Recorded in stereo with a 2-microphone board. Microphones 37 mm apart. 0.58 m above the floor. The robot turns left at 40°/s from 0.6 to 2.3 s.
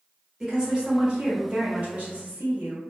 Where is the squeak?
I don't hear a squeak.